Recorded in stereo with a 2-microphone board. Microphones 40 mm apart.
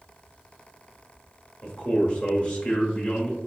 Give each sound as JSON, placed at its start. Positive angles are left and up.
{"t": 1.6, "sound": "a man speaking", "side_deg": 25, "distance_m": 1.1}